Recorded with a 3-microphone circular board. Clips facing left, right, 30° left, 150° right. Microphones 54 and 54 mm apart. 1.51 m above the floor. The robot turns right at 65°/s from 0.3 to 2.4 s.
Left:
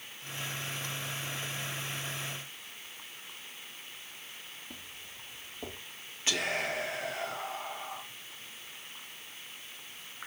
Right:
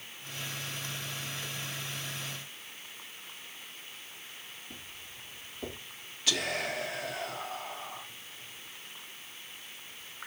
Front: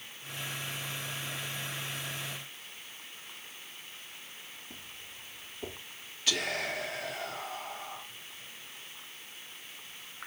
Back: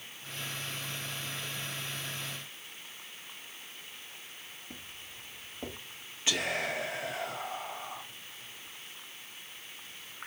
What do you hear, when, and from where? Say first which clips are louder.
4.7 s footsteps: even, back 1 dB; 145° left, 4.5 m; by 5.8 s 155° left, 4.5 m
6.3 s whispering: even, back 1 dB; 145° left, 1.5 m